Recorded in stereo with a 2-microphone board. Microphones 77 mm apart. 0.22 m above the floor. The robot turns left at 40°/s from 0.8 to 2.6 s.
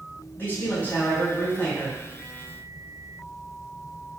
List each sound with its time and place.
0.4 s a man speaking: 25° left (ahead or behind), 1.5 m